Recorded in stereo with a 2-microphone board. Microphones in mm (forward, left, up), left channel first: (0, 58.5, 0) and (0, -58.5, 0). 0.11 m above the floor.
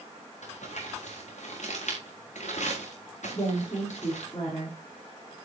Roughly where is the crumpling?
Left.